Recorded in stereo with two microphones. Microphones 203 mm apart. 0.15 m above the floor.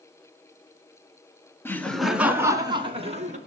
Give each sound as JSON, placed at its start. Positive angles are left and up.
{"t": 1.6, "sound": "laughter", "side_deg": 10, "distance_m": 1.3}